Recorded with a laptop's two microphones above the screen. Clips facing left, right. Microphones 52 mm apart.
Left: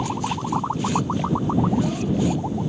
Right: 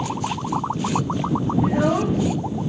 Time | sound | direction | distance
1.6 | a child speaking | 70° right (ahead or behind) | ?